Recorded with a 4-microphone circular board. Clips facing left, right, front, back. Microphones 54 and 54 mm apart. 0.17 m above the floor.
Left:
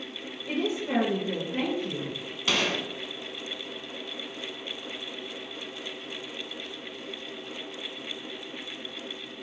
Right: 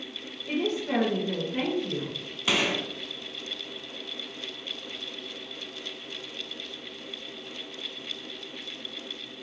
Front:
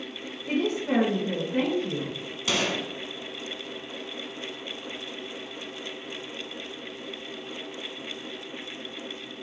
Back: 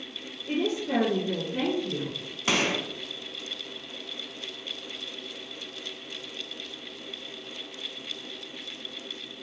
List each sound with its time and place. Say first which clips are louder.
0.5 s a woman speaking: right 1 dB, front 2 dB; 10° left, 1.8 m
2.5 s a gunshot: right 1 dB, back 1 dB; 160° right, 0.8 m